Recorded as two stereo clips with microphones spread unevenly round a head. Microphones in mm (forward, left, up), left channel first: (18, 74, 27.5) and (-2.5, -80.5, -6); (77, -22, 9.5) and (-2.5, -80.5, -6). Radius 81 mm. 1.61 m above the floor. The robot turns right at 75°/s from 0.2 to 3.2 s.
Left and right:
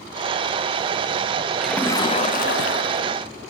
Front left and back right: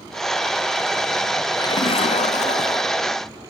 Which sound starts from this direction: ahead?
A splash, at 1.6 s.